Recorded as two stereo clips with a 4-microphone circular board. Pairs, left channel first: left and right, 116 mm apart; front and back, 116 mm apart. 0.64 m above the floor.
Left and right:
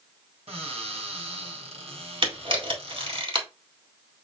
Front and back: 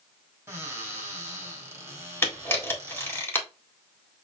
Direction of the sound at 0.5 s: 115° right.